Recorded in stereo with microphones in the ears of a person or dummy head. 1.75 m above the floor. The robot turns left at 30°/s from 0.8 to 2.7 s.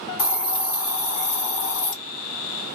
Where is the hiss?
120° left, 1.2 m; by 1.9 s 85° left, 1.2 m.